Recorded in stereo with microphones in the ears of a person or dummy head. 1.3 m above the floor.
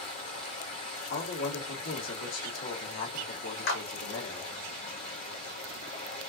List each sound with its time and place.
0.0 s running water: 45° left (ahead or behind), 1.7 m
1.1 s a man speaking: 85° left, 1.8 m
3.7 s a clap: 75° left (ahead or behind), 2 m